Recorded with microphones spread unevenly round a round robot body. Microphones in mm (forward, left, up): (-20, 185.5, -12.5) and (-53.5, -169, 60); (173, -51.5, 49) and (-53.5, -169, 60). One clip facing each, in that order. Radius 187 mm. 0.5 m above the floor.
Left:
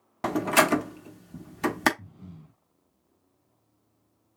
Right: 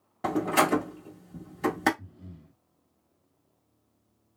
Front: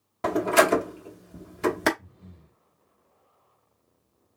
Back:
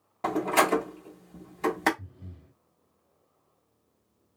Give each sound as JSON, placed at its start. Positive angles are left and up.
{"t": 0.2, "sound": "a door slam", "azimuth_deg": 90, "distance_m": 0.8}
{"t": 2.0, "sound": "breathing", "azimuth_deg": 155, "distance_m": 1.4}